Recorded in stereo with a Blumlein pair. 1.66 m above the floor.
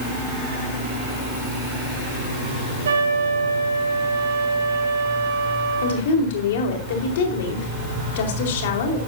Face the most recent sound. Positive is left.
turn(degrees=55)